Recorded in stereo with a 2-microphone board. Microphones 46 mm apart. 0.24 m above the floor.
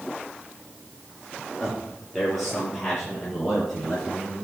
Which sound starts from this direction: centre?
A man speaking, at 1.6 s.